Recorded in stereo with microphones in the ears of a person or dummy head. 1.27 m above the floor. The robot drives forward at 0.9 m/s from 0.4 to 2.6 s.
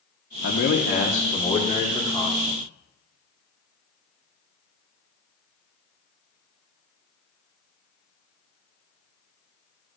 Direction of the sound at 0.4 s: 55° left (ahead or behind).